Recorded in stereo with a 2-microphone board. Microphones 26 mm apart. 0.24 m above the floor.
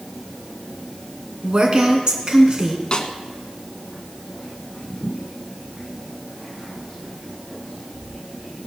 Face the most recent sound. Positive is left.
turn(degrees=40)  # may be behind; listen again after turning